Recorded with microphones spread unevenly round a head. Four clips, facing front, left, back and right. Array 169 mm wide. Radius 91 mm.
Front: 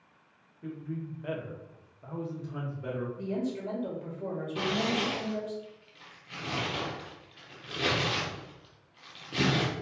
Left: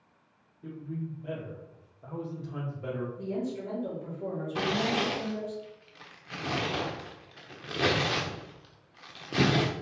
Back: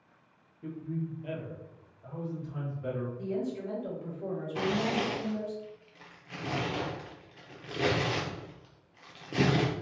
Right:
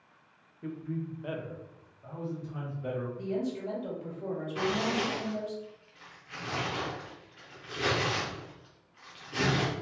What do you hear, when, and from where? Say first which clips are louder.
0.6 s a man speaking: right 2 dB, back 1 dB; 75° right, 1.5 m; by 3.1 s 50° left, 2 m
3.2 s a woman speaking: right 1 dB, front 1 dB; 5° right, 2 m
4.5 s tearing paper: left 1 dB, back 1 dB; 120° left, 0.6 m